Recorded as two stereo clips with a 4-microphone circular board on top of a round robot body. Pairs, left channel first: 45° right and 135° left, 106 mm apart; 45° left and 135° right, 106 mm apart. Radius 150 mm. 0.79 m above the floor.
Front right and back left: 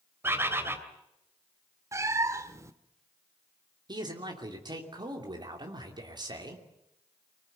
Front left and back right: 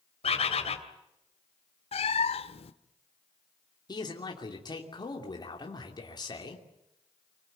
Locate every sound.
0.2 s a bird: 65° left, 2.5 m
1.9 s a cat meowing: 70° left, 0.8 m
3.9 s a man speaking: 90° left, 3 m